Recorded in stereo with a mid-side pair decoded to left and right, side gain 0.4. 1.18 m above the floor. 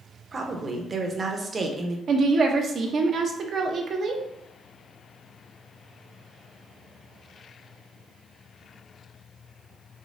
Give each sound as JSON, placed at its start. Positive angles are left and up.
{"t": 0.3, "sound": "a woman speaking", "azimuth_deg": -40, "distance_m": 1.0}
{"t": 2.1, "sound": "a woman speaking", "azimuth_deg": -55, "distance_m": 0.9}